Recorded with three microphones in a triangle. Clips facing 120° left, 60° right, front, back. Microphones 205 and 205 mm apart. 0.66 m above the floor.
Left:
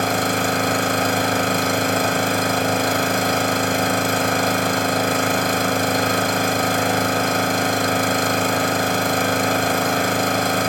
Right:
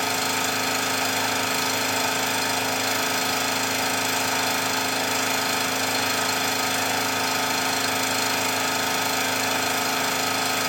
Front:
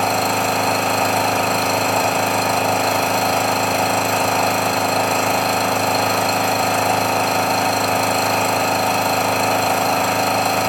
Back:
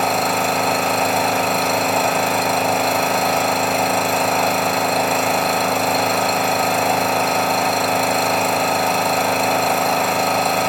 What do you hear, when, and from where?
0.0 s an engine running: 90° left, 1.4 m